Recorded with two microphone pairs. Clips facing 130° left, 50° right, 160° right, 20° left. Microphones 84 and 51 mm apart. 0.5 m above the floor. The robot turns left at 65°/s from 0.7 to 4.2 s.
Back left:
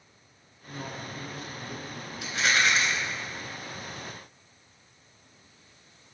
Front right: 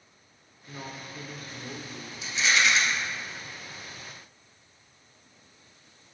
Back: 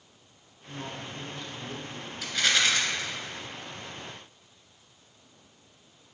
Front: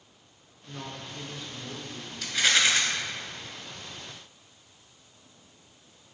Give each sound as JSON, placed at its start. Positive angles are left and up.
{"t": 0.7, "sound": "a man speaking", "azimuth_deg": -10, "distance_m": 1.2}
{"t": 2.2, "sound": "a rattle", "azimuth_deg": 120, "distance_m": 1.3}